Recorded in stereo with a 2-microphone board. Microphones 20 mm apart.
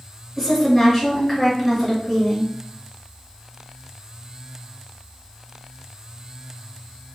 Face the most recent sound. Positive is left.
turn(degrees=0)  # may be behind; listen again after turning